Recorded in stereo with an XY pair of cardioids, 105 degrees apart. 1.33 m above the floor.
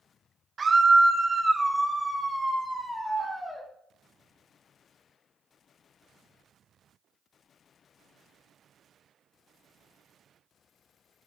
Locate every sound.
0.6 s a scream: 35° right, 1.7 m; by 3.6 s 15° left, 4 m